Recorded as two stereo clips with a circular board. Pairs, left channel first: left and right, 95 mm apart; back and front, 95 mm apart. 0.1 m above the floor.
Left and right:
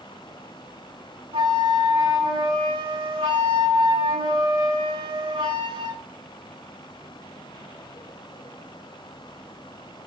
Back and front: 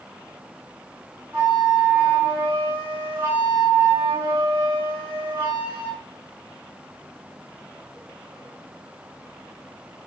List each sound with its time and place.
1.3 s a flute: 70° right, 3 m